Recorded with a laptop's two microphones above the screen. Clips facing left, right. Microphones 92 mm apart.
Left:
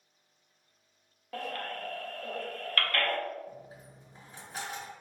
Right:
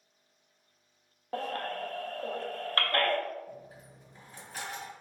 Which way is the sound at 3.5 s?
25° left (ahead or behind).